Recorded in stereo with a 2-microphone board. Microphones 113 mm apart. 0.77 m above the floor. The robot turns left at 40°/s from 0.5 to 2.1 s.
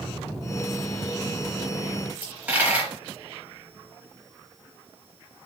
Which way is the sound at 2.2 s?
15° right (ahead or behind).